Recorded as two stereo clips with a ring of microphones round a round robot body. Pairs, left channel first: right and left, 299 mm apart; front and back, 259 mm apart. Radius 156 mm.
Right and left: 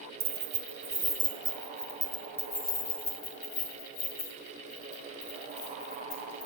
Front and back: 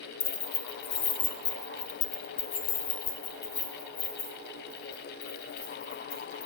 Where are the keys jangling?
30° left, 1.9 m; by 6.5 s 40° right, 4.5 m.